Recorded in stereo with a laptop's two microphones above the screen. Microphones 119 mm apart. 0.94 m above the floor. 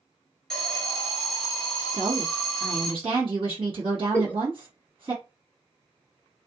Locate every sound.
0.5 s an alarm: 5° left (ahead or behind), 1.2 m
1.9 s a woman speaking: 55° right (ahead or behind), 1.5 m
4.1 s a giggle: 15° left (ahead or behind), 0.5 m